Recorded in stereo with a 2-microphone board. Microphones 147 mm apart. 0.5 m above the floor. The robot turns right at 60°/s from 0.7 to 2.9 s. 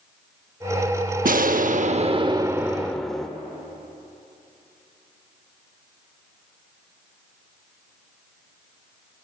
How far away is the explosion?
About 0.6 m.